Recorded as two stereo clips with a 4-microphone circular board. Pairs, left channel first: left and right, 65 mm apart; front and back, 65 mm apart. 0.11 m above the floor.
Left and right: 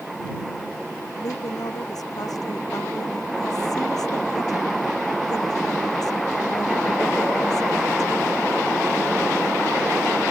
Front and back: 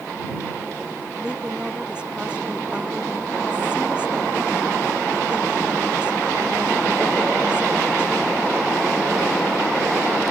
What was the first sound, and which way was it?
A woman speaking, 105° left.